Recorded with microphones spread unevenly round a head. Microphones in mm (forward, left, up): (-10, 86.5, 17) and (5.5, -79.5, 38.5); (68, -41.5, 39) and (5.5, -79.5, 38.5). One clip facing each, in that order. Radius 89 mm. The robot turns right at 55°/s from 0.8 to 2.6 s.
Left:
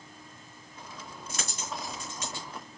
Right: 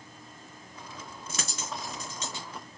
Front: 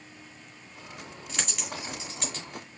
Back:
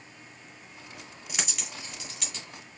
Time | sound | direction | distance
1.3 | a dropped coin | 75° right | 2 m